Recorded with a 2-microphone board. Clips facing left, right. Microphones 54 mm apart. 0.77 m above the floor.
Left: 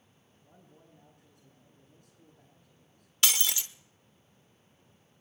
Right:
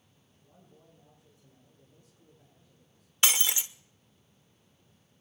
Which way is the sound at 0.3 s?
80° left.